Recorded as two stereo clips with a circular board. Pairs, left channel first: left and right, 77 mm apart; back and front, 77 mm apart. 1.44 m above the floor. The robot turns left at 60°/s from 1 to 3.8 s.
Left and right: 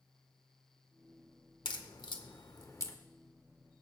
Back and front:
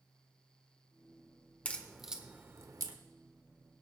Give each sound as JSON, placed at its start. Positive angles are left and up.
{"t": 1.6, "sound": "a crack", "azimuth_deg": 110, "distance_m": 1.2}